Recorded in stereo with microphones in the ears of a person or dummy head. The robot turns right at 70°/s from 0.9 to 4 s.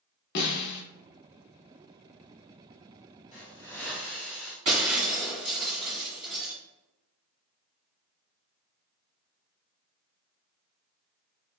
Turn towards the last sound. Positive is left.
turn(degrees=-25)  # may be behind; listen again after turning